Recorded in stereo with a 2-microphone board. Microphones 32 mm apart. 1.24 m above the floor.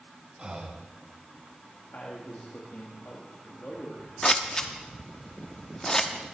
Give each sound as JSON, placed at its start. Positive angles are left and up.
{"t": 0.4, "sound": "breathing", "side_deg": -30, "distance_m": 1.1}
{"t": 1.9, "sound": "a man speaking", "side_deg": 60, "distance_m": 1.8}
{"t": 4.2, "sound": "scissors", "side_deg": 20, "distance_m": 0.9}